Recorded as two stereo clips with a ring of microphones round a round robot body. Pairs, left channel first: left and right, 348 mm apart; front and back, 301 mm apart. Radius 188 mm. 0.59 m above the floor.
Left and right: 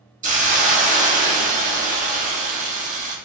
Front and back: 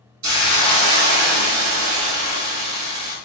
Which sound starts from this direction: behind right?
A hiss, at 0.2 s.